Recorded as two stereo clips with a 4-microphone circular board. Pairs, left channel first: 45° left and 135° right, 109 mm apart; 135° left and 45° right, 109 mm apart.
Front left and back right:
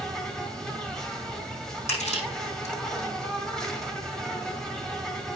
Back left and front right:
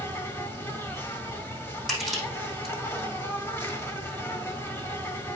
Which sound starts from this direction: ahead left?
Crushing, at 1.9 s.